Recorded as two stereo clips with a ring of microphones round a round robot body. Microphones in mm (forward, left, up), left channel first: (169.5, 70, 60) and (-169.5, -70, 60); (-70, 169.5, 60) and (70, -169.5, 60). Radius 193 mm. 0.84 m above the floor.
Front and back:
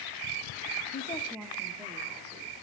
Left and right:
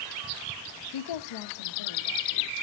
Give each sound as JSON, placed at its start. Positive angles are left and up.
{"t": 0.9, "sound": "a woman speaking", "azimuth_deg": 85, "distance_m": 0.6}